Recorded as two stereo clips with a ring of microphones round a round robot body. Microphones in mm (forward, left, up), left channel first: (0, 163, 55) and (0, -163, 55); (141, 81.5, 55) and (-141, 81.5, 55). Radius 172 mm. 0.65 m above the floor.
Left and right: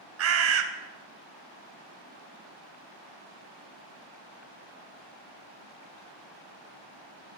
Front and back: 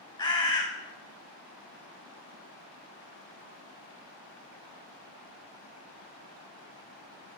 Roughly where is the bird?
Right.